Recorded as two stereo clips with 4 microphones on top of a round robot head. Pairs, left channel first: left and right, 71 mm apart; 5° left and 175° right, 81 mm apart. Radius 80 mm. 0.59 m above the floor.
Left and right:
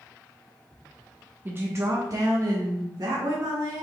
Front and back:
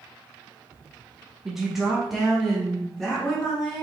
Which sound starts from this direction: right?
A woman speaking, at 1.4 s.